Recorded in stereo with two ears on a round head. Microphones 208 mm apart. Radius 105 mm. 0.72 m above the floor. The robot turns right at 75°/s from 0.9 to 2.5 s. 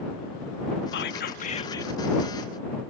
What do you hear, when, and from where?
0.9 s whispering: 95° left; by 1.9 s 170° left